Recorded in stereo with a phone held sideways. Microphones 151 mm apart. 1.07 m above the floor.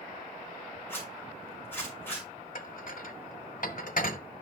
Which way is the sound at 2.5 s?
65° left (ahead or behind).